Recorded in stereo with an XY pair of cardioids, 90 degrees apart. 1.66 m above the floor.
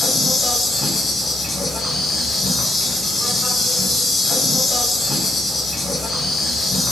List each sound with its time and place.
0.0 s an insect: 45° left, 0.8 m